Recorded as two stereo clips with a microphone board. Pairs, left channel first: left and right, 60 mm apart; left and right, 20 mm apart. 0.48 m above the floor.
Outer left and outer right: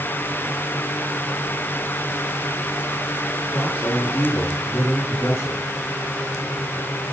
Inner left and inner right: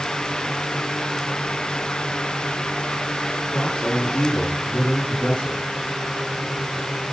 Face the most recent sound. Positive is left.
turn(degrees=45)  # may be behind; listen again after turning